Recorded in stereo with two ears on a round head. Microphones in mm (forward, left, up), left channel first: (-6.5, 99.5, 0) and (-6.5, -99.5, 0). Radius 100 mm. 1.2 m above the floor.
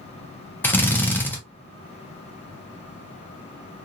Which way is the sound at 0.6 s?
10° left (ahead or behind).